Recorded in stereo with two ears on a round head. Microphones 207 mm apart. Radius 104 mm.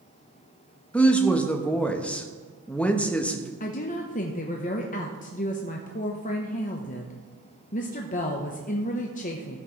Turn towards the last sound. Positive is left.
turn(degrees=35)  # may be behind; listen again after turning